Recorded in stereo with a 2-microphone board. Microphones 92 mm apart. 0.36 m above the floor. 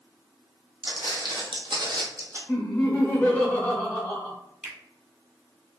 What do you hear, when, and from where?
0.8 s footsteps: 55° right (ahead or behind), 1.2 m; by 2.4 s 35° right (ahead or behind), 0.8 m
2.5 s laughter: 20° left (ahead or behind), 0.9 m
4.6 s a finger snap: 5° right (ahead or behind), 0.9 m